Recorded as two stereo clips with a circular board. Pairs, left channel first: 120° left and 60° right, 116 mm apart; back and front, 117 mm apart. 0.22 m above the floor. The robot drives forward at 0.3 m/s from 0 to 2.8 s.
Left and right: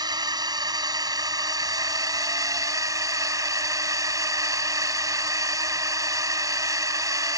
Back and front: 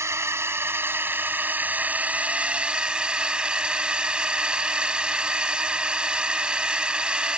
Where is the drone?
50° right; by 7.4 s 75° right.